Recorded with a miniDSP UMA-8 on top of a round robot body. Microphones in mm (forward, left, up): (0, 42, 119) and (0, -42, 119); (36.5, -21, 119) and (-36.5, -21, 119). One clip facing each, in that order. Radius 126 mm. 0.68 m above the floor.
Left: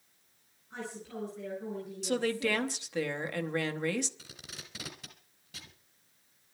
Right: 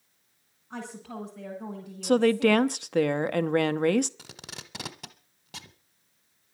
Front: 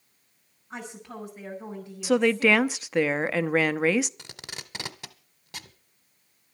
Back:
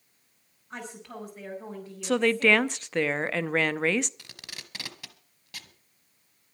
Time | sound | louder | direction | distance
0.7 | a woman speaking | right 3 dB, front 1 dB | 85° right | 5.5 m
2.0 | a woman speaking | right 10 dB, front 2 dB | 85° right | 0.8 m
4.2 | tape being pulled | right 5 dB, front 4 dB | 65° right | 1.1 m